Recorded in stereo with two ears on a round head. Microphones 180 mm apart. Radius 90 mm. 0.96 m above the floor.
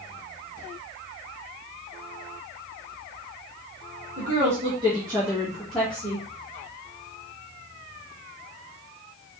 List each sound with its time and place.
4.2 s a woman speaking: 40° right (ahead or behind), 1.4 m; by 6.3 s 15° left (ahead or behind), 1.5 m